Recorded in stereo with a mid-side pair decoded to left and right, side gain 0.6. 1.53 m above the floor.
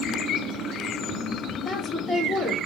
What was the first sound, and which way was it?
A woman speaking, 20° left.